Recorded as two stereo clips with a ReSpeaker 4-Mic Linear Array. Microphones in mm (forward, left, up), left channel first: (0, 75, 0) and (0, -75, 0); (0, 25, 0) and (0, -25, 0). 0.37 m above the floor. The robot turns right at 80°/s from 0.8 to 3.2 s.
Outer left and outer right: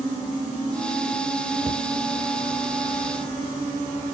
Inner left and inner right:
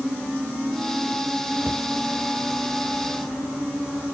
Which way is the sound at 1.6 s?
60° right (ahead or behind).